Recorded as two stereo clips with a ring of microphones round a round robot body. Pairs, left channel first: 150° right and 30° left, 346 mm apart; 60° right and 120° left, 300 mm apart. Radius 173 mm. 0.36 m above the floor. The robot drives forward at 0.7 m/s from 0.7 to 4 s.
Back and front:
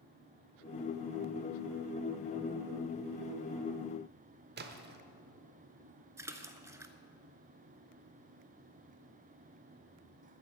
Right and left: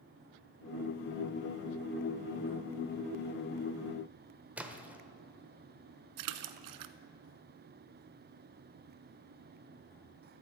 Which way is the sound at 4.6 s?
40° left.